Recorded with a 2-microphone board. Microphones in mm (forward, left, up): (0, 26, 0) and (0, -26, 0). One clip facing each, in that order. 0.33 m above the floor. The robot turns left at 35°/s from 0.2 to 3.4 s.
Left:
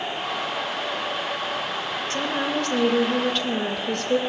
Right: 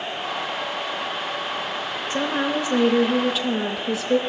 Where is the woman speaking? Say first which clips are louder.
Right 3 dB; 15° right (ahead or behind), 0.8 m; by 4.2 s 5° right (ahead or behind), 0.8 m.